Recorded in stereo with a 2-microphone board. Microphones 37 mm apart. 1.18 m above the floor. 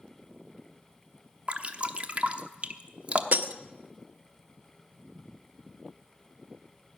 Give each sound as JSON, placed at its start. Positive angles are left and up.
{"t": 1.5, "sound": "dripping", "side_deg": -35, "distance_m": 0.8}
{"t": 3.3, "sound": "breaking glass", "side_deg": -50, "distance_m": 0.6}